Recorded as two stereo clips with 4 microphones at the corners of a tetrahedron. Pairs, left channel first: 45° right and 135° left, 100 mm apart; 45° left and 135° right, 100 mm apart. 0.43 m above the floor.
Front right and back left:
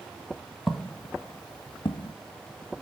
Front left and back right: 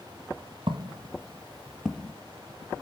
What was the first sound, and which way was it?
Footsteps, 135° right.